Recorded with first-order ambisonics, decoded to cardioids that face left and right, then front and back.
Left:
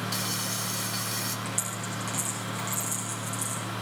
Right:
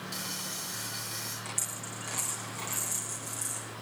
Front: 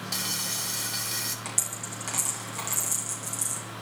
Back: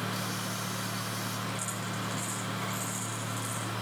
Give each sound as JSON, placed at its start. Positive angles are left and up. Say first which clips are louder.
{"t": 0.1, "sound": "frying", "louder": "left 4 dB, front 4 dB", "azimuth_deg": 25, "distance_m": 3.0}
{"t": 1.4, "sound": "a dropped coin", "louder": "left 4 dB, front 2 dB", "azimuth_deg": 5, "distance_m": 6.5}